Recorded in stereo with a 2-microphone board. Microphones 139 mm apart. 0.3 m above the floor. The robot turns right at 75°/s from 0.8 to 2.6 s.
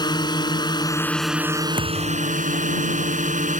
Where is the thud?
95° right; by 2.4 s 50° right.